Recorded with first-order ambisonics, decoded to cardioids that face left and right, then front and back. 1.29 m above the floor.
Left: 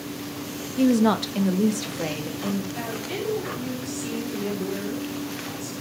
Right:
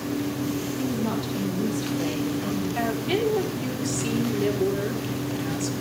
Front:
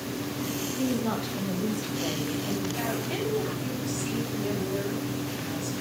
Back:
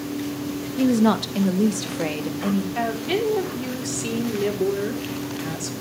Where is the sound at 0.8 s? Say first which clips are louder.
Left 7 dB, back 11 dB; 130° left, 1.6 m; by 2.6 s 170° left, 2.5 m.